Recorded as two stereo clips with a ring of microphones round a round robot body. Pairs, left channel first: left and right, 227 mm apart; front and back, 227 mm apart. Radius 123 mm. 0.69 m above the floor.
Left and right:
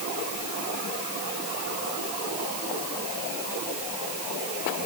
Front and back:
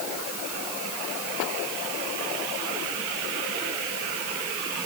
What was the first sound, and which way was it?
Only background noise.